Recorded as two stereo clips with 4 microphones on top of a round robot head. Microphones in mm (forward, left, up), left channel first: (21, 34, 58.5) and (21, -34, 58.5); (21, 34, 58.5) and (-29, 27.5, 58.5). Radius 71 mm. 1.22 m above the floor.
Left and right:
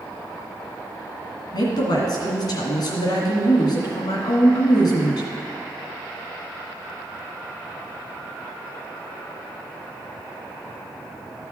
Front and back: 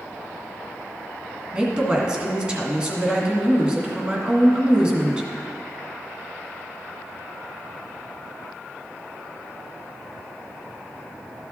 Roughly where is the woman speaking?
Behind left.